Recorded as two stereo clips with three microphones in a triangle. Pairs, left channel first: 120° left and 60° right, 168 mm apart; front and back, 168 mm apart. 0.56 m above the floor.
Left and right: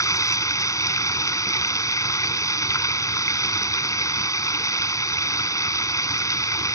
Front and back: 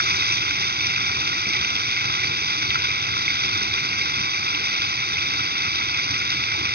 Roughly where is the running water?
Behind.